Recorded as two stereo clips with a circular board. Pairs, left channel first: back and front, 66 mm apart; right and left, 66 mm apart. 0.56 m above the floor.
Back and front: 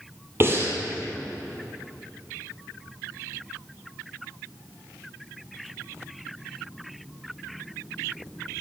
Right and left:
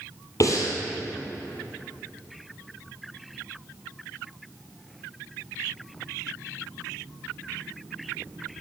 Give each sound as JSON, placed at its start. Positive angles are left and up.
{"t": 0.4, "sound": "breathing", "azimuth_deg": -55, "distance_m": 2.5}